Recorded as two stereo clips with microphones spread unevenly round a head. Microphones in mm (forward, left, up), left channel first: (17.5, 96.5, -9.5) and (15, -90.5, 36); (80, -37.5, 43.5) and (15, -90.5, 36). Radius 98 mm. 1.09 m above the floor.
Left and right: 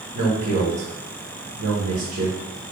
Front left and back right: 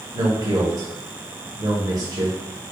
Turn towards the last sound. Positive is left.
turn(degrees=-110)